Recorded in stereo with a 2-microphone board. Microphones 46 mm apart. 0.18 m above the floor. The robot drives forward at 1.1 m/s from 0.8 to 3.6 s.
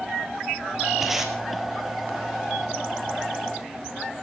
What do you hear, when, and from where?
1.0 s tape being pulled: 10° right (ahead or behind), 2.5 m; by 1.3 s 5° right (ahead or behind), 2.5 m